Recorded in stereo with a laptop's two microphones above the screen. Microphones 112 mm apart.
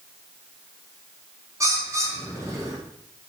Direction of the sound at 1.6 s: 25° right (ahead or behind).